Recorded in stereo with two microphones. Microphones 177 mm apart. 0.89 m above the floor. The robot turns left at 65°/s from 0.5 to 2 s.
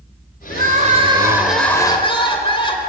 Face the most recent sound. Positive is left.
turn(degrees=150)